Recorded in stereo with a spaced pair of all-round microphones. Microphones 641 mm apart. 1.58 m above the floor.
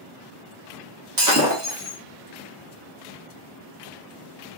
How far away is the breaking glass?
About 1.1 m.